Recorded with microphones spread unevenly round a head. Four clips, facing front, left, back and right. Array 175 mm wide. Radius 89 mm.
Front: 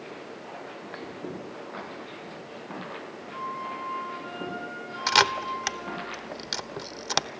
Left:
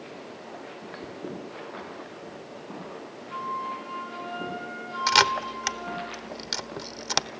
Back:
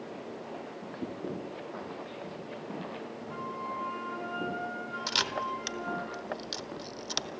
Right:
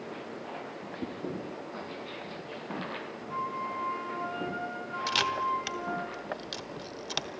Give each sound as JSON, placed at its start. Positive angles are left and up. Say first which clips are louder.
{"t": 1.0, "sound": "a whoosh", "louder": "right 6 dB, back 2 dB", "azimuth_deg": -140, "distance_m": 2.5}
{"t": 3.3, "sound": "a flute", "louder": "left 2 dB, front 4 dB", "azimuth_deg": -135, "distance_m": 4.5}
{"t": 5.1, "sound": "a camera shutter", "louder": "left 6 dB, front 10 dB", "azimuth_deg": 40, "distance_m": 1.0}